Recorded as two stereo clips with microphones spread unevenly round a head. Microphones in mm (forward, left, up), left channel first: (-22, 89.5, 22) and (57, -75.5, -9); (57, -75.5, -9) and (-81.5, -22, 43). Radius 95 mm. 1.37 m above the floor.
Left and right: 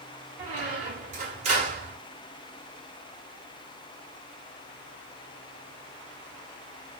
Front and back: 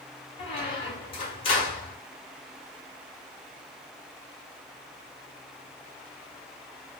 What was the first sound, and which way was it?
A squeak, 75° right.